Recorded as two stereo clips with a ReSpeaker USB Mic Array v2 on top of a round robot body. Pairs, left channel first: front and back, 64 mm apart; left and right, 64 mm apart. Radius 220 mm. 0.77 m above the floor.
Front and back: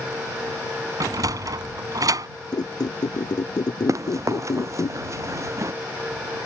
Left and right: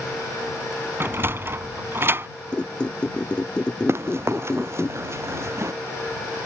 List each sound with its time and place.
1.0 s a sliding door: 145° right
2.5 s a squeak: 15° left
3.9 s running footsteps: 140° right